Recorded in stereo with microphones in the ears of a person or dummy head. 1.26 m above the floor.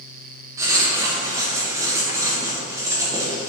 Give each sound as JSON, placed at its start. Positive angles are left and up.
{"t": 0.6, "sound": "writing", "side_deg": -15, "distance_m": 1.4}